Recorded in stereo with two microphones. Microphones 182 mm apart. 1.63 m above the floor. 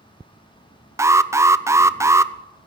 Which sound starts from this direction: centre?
An alarm, at 1.0 s.